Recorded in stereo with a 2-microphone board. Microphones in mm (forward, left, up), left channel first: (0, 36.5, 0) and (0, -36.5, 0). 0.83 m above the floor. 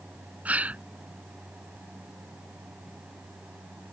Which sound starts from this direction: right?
A gasp, at 0.5 s.